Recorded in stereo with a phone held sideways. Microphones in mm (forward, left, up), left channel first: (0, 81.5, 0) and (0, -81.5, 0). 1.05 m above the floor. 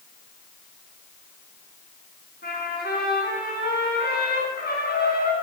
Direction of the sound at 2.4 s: 80° left.